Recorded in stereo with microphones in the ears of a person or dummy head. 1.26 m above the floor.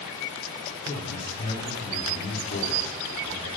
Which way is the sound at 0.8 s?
55° left (ahead or behind).